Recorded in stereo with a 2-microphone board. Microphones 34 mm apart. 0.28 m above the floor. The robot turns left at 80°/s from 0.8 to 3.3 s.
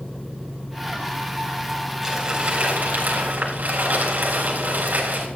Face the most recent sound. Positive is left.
turn(degrees=-105)